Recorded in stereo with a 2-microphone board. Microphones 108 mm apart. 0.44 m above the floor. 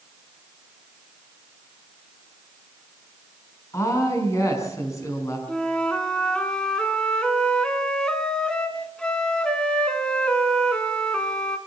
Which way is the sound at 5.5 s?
10° left (ahead or behind).